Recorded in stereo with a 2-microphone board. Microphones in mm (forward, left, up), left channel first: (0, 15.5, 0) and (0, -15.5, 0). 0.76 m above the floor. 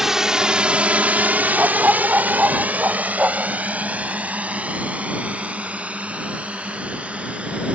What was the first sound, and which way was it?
A drone, 10° right (ahead or behind).